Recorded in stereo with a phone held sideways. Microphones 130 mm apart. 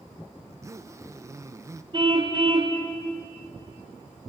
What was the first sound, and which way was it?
A zipper, 20° right (ahead or behind).